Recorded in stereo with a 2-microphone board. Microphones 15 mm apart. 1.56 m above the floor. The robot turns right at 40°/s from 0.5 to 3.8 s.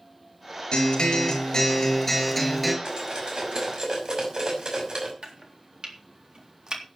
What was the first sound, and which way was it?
A guitar, 105° left.